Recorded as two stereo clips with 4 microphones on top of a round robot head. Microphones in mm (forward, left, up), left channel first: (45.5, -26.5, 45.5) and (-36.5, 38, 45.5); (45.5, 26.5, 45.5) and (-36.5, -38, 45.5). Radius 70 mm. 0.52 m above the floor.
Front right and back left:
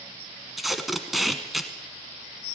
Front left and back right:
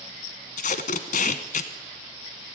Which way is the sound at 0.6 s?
55° left.